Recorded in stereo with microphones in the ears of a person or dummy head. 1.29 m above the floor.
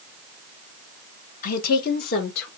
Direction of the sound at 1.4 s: 55° left (ahead or behind).